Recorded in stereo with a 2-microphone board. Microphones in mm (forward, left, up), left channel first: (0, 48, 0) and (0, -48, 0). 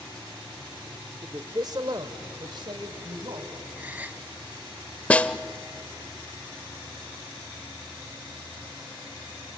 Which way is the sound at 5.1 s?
15° left (ahead or behind).